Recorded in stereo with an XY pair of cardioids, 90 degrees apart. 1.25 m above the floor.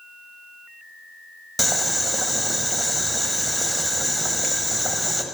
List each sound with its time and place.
1.6 s boiling: 5° left, 1.0 m